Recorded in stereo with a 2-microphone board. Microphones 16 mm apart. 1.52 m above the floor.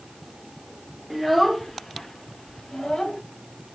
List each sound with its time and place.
1.1 s a child speaking: 5° right (ahead or behind), 0.7 m; by 3.2 s 60° left (ahead or behind), 1.1 m